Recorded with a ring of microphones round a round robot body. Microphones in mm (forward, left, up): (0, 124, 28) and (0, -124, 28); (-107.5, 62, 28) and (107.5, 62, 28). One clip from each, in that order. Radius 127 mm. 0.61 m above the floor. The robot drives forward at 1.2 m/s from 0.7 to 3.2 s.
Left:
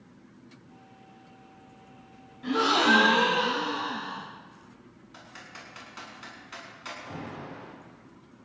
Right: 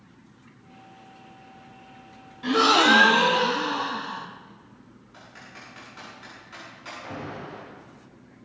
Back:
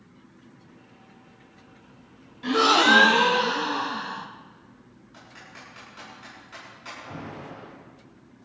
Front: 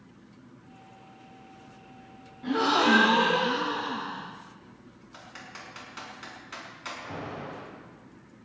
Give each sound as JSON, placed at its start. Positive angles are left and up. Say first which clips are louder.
{"t": 2.4, "sound": "a gasp", "louder": "right 5 dB, back 5 dB", "azimuth_deg": -150, "distance_m": 1.1}
{"t": 5.1, "sound": "typing on a keyboard", "louder": "even, front 2 dB", "azimuth_deg": 35, "distance_m": 7.0}
{"t": 7.0, "sound": "an alarm", "louder": "right 4 dB, front 1 dB", "azimuth_deg": -40, "distance_m": 8.5}